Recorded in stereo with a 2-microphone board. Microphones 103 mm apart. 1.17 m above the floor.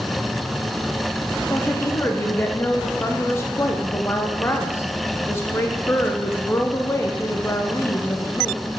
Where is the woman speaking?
25° left (ahead or behind), 0.5 m.